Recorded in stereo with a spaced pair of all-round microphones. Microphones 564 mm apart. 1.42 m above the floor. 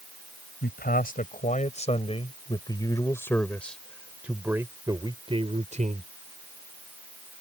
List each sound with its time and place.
0.6 s a man speaking: 15° left (ahead or behind); by 6.1 s 15° right (ahead or behind)